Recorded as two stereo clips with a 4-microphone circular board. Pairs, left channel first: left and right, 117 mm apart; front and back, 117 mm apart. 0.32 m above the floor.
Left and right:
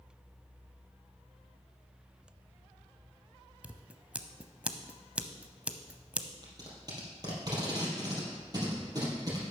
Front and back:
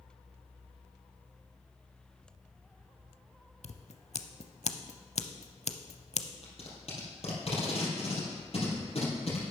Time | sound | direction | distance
3.6 | scissors | 10° right | 0.6 m
6.4 | tape being pulled | 35° right | 3 m